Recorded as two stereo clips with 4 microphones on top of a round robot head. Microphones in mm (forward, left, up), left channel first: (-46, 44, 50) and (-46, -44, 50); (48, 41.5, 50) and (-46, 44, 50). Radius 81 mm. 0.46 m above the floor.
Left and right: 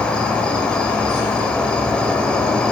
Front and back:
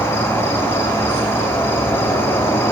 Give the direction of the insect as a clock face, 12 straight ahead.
11 o'clock.